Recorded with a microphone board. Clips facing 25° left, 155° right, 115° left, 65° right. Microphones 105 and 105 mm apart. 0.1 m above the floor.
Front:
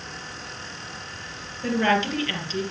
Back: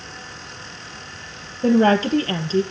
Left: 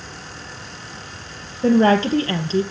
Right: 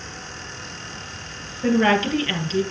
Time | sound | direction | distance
1.6 | a woman speaking | 165° left | 2.5 m